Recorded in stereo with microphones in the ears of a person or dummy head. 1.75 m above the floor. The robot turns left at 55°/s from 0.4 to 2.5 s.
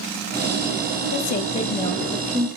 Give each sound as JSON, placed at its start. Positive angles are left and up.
{"t": 1.1, "sound": "a woman speaking", "azimuth_deg": 55, "distance_m": 0.7}